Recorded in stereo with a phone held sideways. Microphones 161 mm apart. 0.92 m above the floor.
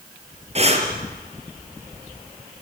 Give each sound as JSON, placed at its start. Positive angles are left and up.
{"t": 0.6, "sound": "breathing", "side_deg": -40, "distance_m": 3.5}